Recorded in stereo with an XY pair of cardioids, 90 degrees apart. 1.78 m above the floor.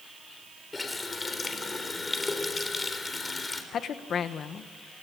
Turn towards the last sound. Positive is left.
turn(degrees=65)